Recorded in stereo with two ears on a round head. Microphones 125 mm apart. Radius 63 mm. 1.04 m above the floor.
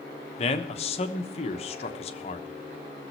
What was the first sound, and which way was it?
A man speaking, 45° left (ahead or behind).